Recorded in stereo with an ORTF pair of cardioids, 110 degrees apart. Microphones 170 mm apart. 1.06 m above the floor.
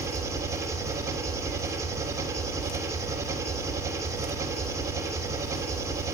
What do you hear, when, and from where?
0.0 s an engine running: 15° right, 3 m